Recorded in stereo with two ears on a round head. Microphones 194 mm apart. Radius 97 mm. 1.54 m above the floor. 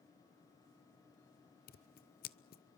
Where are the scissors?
40° left (ahead or behind), 0.8 m.